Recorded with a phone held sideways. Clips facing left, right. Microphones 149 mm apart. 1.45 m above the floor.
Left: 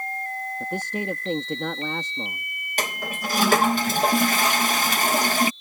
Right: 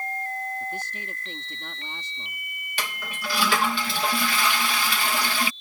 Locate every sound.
0.6 s a man speaking: 85° left
2.8 s a toilet flushing: 40° left (ahead or behind)